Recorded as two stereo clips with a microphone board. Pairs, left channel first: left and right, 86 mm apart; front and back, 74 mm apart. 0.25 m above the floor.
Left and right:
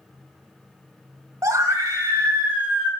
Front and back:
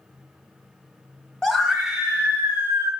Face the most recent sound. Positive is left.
turn(degrees=-160)